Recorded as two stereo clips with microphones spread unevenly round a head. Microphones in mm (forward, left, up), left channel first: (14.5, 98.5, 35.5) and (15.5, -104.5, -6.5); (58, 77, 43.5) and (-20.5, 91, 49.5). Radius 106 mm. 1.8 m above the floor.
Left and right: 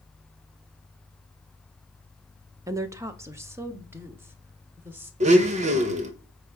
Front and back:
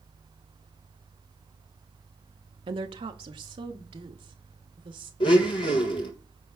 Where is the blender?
30° right, 1.4 m.